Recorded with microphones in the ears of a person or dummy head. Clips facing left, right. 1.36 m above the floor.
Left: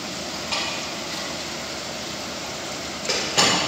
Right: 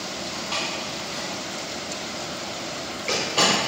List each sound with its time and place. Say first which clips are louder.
0.3 s a door slam: even; 15° left (ahead or behind), 1.2 m